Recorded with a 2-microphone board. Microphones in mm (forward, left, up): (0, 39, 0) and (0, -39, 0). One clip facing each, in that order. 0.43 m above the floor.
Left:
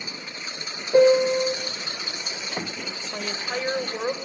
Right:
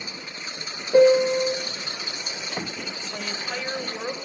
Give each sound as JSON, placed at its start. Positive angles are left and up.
{"t": 0.9, "sound": "a piano", "side_deg": 0, "distance_m": 0.9}
{"t": 3.1, "sound": "a woman speaking", "side_deg": 30, "distance_m": 1.2}